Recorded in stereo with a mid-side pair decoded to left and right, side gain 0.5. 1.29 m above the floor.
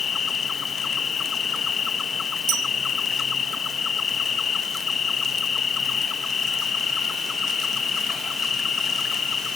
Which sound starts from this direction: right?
A bell, at 2.5 s.